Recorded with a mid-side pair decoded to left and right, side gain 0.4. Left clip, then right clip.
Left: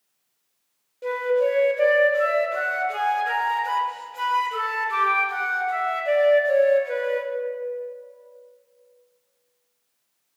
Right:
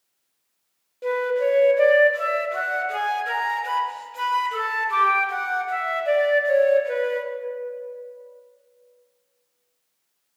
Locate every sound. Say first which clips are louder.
1.0 s a flute: even; 25° right, 0.8 m